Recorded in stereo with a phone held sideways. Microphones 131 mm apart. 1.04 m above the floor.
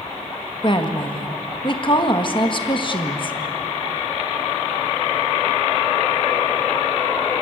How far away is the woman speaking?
About 1.6 m.